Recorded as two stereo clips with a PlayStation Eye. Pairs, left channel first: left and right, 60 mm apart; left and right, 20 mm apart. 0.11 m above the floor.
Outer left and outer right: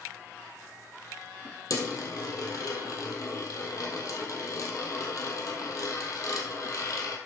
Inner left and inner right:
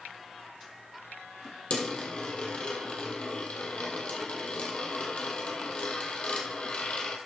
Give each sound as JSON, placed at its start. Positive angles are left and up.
{"t": 1.7, "sound": "a dropped coin", "side_deg": 60, "distance_m": 2.0}